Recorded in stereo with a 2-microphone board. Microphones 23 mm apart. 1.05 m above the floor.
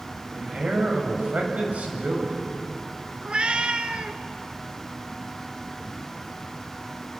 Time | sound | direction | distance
0.3 | a man speaking | 75° right (ahead or behind) | 7.5 m
3.2 | a cat meowing | 45° right (ahead or behind) | 1.6 m